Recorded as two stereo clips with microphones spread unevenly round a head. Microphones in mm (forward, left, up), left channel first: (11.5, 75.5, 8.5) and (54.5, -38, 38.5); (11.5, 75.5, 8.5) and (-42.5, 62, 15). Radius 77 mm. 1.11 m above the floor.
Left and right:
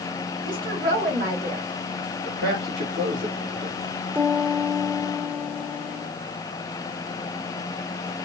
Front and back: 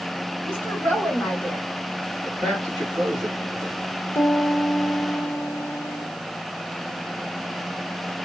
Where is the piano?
10° left, 1.0 m.